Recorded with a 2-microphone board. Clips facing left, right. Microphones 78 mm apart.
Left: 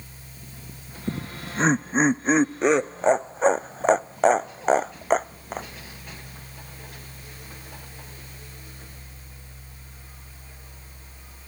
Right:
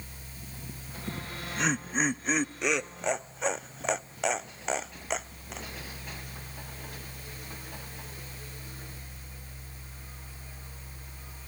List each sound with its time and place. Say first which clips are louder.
1.1 s laughter: left 6 dB; 35° left (ahead or behind); by 5.7 s 45° left (ahead or behind)